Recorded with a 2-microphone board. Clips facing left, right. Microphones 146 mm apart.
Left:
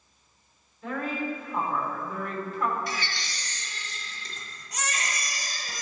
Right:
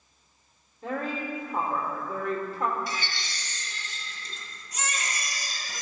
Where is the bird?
No bird in this recording.